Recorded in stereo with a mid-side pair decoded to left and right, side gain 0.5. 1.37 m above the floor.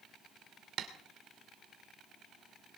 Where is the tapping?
65° right, 2.5 m.